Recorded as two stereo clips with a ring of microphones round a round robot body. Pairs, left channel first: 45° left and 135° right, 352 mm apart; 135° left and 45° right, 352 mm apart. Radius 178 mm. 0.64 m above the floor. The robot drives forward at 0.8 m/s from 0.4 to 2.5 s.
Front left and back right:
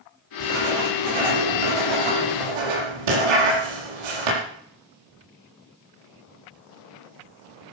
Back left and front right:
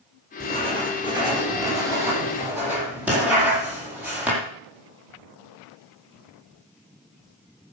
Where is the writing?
120° right, 6.5 m; by 4.4 s 130° right, 7.5 m.